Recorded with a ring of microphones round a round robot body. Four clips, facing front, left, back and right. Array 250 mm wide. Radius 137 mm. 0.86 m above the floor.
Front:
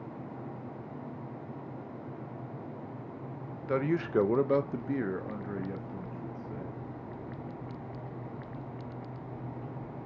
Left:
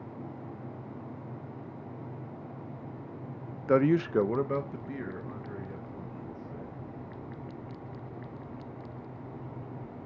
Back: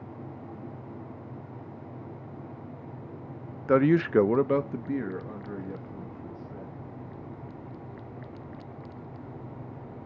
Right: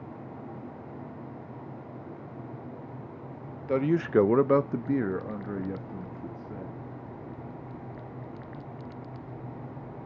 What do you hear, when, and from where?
3.7 s a man speaking: 150° left, 0.5 m; by 6.8 s 75° right, 2 m